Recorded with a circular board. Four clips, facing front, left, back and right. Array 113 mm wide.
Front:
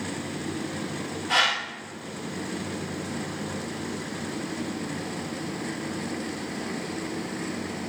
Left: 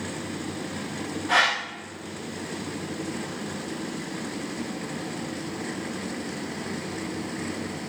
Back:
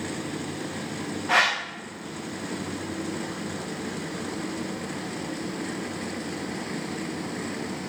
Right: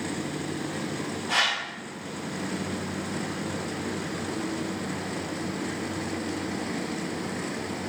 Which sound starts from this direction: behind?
A whoosh, at 1.3 s.